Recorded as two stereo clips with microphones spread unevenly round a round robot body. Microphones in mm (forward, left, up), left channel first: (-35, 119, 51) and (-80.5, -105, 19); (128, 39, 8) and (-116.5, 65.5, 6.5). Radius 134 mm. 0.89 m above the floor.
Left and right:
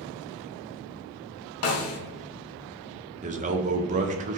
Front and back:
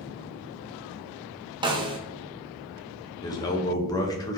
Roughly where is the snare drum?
Left.